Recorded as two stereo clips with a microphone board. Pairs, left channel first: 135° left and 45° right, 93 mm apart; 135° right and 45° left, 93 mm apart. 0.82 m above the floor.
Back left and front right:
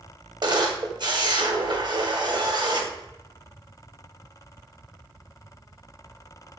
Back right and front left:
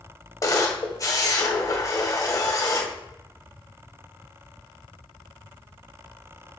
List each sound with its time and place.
0.4 s a camera shutter: 85° right, 1.7 m